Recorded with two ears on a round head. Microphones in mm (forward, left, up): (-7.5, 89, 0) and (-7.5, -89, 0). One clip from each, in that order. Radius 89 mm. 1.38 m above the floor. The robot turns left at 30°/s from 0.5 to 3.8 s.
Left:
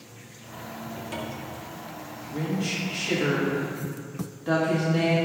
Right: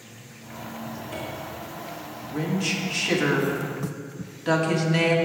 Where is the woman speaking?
10° right, 1.9 m; by 5.2 s 55° right, 1.9 m.